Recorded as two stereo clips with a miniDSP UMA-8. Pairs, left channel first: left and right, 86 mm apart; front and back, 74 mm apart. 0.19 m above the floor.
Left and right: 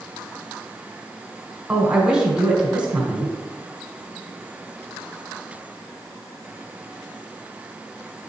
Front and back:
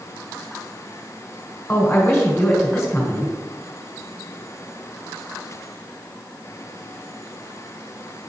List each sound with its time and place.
1.7 s a man speaking: 20° right, 1.6 m